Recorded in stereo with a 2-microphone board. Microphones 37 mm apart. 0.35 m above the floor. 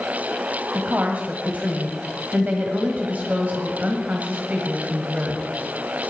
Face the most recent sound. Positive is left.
turn(degrees=-45)  # may be behind; listen again after turning